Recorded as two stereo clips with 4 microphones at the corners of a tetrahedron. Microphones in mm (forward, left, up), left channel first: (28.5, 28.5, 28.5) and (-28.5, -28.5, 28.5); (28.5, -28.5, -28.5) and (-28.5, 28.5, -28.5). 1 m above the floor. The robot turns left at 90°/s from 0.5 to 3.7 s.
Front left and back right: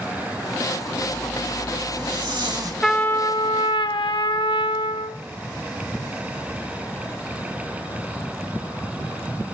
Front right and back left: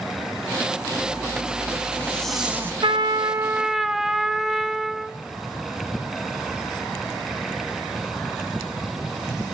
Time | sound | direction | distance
0.9 | a zipper | 10° right | 3 m
2.8 | a trumpet | 130° left | 0.7 m